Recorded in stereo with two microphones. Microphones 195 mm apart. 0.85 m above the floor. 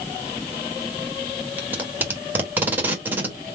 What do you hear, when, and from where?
1.6 s tape being pulled: 10° right (ahead or behind), 1.2 m